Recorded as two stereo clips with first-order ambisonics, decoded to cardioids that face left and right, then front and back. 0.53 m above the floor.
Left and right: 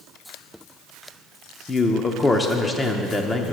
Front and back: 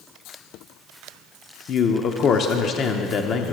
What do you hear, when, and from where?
1.7 s a man speaking: 20° left, 0.7 m